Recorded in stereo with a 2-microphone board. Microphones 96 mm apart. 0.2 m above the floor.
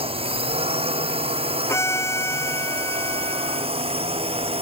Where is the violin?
30° left (ahead or behind).